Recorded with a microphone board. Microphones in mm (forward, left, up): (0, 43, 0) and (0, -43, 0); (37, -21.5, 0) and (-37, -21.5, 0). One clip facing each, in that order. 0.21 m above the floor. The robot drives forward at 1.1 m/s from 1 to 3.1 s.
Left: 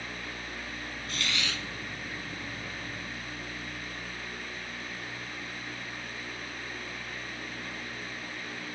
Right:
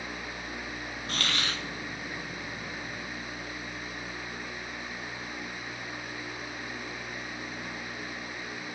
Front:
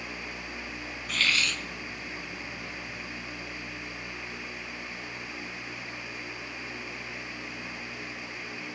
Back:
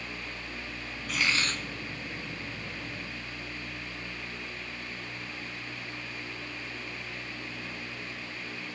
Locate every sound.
1.1 s a hiss: 90° right, 0.5 m; by 1.6 s 140° right, 0.8 m